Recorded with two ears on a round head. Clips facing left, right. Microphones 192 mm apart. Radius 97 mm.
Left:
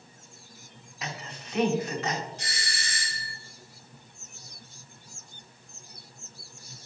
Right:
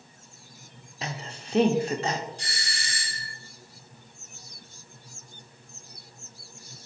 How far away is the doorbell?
About 2.5 m.